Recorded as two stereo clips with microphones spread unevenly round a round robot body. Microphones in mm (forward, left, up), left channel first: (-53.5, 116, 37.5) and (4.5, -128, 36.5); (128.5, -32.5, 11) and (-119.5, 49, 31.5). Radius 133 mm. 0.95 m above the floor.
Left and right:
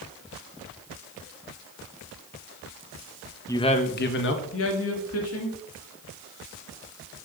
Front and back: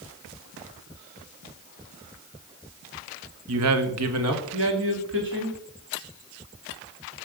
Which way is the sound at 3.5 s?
Straight behind.